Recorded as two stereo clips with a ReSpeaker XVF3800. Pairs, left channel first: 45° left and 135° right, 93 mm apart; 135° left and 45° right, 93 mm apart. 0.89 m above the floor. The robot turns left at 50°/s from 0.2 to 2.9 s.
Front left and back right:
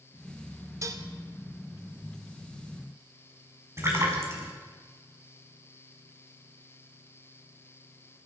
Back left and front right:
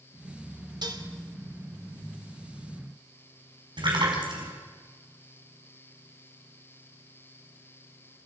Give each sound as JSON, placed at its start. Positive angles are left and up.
{"t": 0.8, "sound": "dishes clattering", "azimuth_deg": -80, "distance_m": 1.8}
{"t": 3.8, "sound": "a splash", "azimuth_deg": -75, "distance_m": 5.5}